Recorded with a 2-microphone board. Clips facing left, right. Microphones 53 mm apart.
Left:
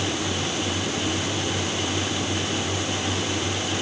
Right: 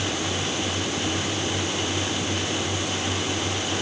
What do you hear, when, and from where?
Only background noise.